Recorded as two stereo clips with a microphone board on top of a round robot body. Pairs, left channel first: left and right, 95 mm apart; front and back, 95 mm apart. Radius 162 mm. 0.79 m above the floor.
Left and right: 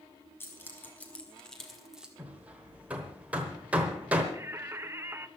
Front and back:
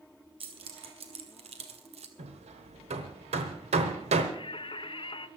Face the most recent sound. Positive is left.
turn(degrees=-25)